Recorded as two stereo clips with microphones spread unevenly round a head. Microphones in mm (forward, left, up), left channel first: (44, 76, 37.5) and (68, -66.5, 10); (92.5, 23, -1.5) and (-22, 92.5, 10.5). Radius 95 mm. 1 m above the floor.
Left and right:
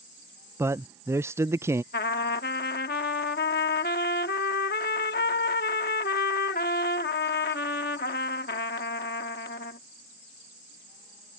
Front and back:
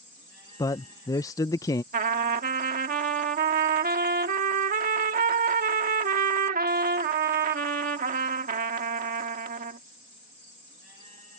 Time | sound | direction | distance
0.6 | a man speaking | 55° right | ?
1.9 | a trumpet | 140° left | ?